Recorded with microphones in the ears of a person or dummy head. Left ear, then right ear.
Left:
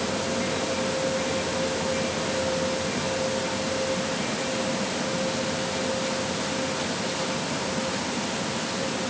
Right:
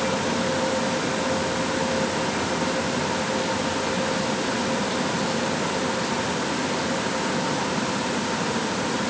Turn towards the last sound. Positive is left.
No sound to turn to.